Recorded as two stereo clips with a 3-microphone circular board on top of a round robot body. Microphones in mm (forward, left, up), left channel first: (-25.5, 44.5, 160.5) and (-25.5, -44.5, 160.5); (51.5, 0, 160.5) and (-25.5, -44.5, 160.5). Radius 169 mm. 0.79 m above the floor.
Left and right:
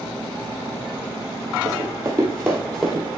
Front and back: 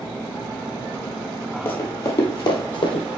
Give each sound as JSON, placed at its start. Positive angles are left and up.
{"t": 1.6, "sound": "running footsteps", "azimuth_deg": -35, "distance_m": 1.4}